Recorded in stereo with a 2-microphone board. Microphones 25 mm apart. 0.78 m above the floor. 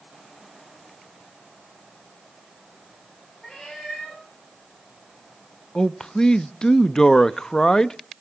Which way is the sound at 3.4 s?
15° left (ahead or behind).